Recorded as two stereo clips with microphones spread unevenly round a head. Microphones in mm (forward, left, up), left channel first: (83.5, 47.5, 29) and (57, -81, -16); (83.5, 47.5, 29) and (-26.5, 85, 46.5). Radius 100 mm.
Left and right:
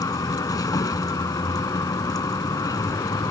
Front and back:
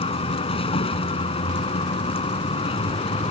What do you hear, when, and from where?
0.0 s a vehicle: 20° left